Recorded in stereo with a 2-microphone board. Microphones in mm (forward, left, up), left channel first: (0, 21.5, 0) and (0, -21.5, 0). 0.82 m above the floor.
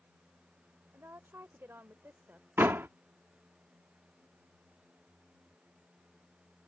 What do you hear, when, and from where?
0.9 s a woman speaking: 65° right (ahead or behind); by 2.5 s 45° right (ahead or behind)
2.6 s a door slam: 55° right (ahead or behind)